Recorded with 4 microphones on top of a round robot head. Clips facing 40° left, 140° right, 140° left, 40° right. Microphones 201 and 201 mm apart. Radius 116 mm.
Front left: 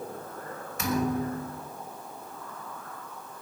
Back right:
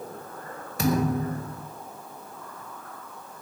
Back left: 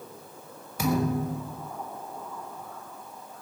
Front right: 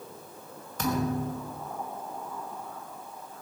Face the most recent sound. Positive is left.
turn(degrees=-145)